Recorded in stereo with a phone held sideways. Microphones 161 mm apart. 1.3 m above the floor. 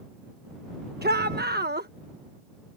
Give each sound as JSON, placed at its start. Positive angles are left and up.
{"t": 1.0, "sound": "a shout", "side_deg": -85}